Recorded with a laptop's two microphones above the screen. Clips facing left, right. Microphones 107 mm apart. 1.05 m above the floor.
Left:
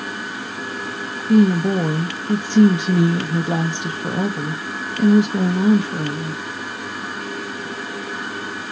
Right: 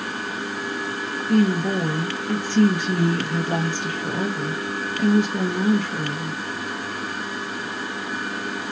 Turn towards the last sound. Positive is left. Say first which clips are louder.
# left 5 dB
turn(degrees=20)  # may be behind; listen again after turning